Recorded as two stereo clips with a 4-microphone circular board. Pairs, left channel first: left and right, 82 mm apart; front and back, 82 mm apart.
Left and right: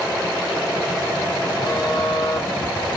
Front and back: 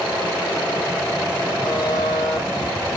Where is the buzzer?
100° left, 8 m.